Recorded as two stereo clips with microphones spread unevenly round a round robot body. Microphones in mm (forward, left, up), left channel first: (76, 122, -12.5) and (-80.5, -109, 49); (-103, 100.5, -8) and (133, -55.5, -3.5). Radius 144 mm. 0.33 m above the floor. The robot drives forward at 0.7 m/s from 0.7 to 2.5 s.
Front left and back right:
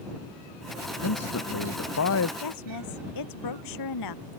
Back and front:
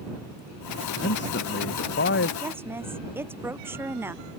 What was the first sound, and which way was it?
A man speaking, 95° left.